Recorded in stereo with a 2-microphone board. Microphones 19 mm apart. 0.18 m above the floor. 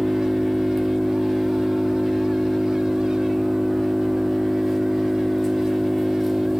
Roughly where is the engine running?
Centre.